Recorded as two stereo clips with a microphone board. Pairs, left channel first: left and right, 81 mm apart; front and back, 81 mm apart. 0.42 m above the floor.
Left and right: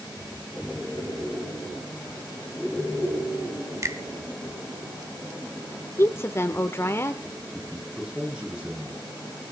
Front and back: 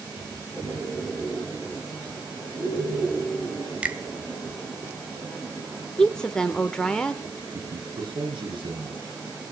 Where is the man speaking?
170° right, 7.5 m.